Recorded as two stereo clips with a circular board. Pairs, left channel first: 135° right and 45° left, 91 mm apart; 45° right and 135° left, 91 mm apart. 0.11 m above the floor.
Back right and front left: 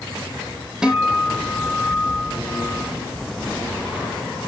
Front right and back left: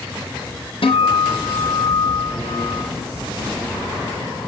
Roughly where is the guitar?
Ahead right.